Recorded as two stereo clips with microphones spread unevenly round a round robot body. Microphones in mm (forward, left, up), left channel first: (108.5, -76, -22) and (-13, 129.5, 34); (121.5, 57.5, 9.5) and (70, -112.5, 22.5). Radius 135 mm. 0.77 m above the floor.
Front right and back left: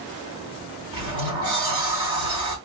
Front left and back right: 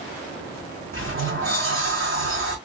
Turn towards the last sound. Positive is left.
turn(degrees=-165)